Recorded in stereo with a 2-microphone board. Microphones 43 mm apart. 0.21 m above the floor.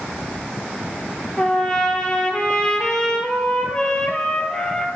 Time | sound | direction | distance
1.4 | a trumpet | 20° left (ahead or behind) | 1.0 m